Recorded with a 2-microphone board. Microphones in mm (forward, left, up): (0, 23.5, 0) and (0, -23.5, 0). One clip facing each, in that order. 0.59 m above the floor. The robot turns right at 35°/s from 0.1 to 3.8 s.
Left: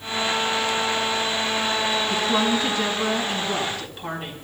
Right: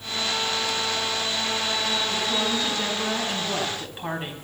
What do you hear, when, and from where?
2.1 s a woman speaking: 135° left, 4 m; by 4.3 s 165° right, 4 m